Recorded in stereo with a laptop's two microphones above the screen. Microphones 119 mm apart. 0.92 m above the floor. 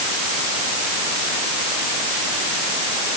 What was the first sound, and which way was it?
Only background noise.